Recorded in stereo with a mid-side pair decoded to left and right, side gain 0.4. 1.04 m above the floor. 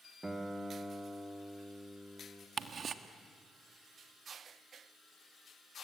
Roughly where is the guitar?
Ahead.